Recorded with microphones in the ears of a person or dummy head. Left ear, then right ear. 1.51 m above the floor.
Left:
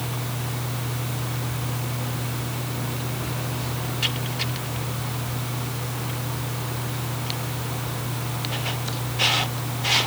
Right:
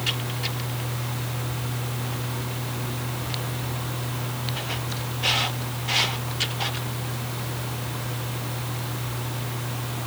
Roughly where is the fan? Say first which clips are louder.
Right 4 dB; centre.